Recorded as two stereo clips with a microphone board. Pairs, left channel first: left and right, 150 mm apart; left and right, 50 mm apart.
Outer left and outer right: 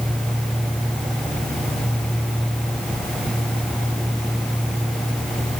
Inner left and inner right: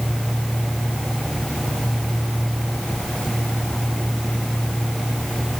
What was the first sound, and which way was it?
Only background noise.